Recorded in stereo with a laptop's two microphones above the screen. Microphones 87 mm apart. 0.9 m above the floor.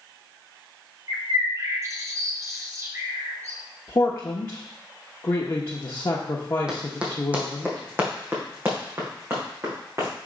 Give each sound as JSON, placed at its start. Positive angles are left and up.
{"t": 1.1, "sound": "a bird", "side_deg": -35, "distance_m": 0.8}
{"t": 3.9, "sound": "a man speaking", "side_deg": 35, "distance_m": 1.0}
{"t": 6.7, "sound": "running footsteps", "side_deg": -10, "distance_m": 1.7}